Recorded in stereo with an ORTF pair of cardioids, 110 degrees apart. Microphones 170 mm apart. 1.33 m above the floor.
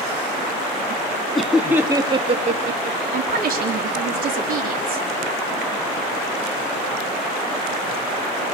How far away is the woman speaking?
About 3 m.